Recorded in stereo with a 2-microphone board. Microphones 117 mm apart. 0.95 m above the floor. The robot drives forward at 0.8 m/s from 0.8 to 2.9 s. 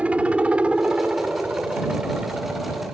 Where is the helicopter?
10° right (ahead or behind); by 3.0 s 5° right (ahead or behind).